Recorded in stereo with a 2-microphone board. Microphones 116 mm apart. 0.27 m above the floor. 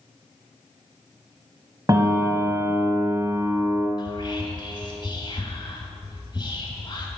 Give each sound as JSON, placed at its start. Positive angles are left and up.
{"t": 1.9, "sound": "a piano", "side_deg": -30, "distance_m": 0.8}
{"t": 4.0, "sound": "whispering", "side_deg": 45, "distance_m": 1.3}